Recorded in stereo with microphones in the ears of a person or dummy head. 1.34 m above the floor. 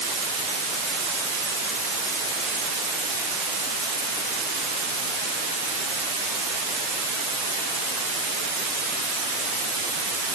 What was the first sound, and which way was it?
Only background noise.